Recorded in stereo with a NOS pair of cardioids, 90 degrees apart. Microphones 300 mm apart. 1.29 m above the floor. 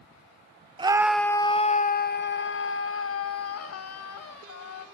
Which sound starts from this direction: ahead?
A scream, at 0.8 s.